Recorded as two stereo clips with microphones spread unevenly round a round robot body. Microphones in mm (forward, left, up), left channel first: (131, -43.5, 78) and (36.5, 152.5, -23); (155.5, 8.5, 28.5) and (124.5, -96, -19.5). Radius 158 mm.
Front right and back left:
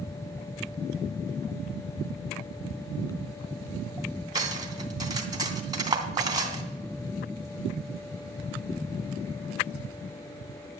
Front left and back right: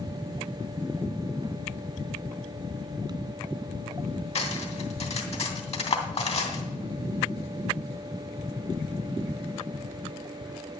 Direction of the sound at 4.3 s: 45° left.